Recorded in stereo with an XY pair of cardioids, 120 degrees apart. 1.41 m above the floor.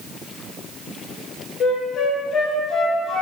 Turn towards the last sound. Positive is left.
turn(degrees=55)